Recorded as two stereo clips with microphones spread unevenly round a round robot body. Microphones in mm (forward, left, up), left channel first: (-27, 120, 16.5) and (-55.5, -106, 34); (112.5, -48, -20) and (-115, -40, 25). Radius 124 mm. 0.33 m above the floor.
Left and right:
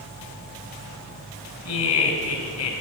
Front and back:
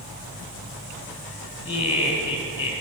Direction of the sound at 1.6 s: 65° left.